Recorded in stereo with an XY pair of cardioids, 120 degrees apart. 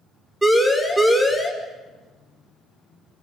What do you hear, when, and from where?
0.4 s a siren: 10° right, 5.5 m